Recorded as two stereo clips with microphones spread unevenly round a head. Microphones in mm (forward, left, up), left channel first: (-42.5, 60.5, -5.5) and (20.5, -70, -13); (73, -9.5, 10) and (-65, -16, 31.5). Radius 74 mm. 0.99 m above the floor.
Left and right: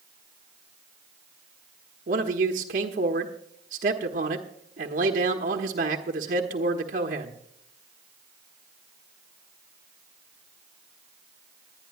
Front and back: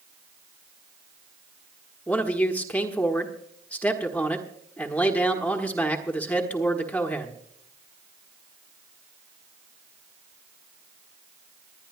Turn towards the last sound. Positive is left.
turn(degrees=-70)